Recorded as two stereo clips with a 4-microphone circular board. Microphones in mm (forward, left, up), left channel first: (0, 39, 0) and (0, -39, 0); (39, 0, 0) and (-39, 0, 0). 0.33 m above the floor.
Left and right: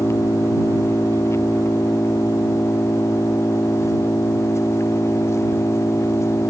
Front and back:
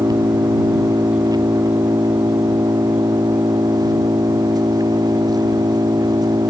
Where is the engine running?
145° left.